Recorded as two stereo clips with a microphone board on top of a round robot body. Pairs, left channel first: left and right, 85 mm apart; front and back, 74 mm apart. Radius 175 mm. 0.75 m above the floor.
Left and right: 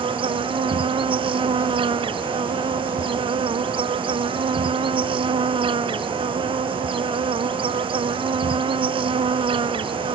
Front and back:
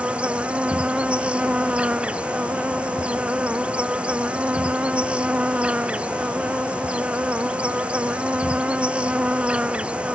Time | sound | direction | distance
0.0 | an insect | 105° right | ?